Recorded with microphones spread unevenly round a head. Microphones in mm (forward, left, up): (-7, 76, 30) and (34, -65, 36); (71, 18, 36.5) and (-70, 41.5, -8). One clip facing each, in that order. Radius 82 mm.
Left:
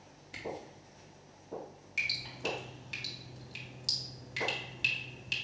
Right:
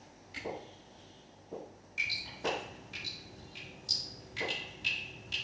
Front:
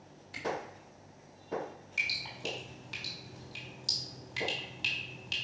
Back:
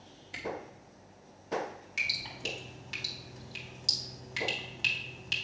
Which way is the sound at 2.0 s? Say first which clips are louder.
Right 2 dB, front 3 dB; 100° left.